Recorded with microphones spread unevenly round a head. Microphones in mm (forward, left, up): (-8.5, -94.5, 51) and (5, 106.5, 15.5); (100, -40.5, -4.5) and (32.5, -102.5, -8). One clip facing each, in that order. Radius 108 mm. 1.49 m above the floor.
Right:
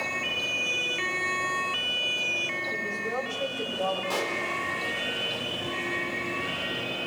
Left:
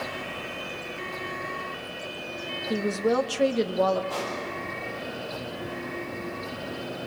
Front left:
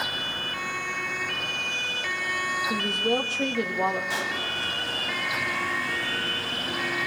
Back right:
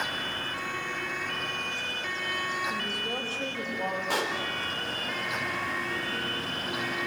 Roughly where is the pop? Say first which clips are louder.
Right 1 dB, back right 1 dB; right.